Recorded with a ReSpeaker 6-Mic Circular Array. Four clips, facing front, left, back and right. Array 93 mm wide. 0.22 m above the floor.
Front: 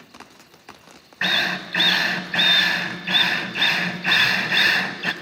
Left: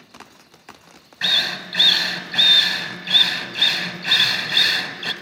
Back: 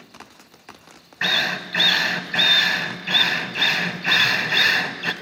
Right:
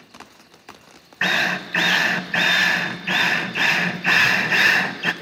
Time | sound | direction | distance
1.2 | a drill | 85° right | 0.5 m